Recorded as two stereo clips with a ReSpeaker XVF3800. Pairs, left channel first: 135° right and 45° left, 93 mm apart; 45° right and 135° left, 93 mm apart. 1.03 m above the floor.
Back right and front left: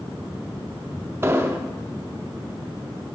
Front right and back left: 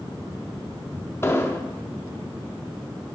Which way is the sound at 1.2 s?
Straight ahead.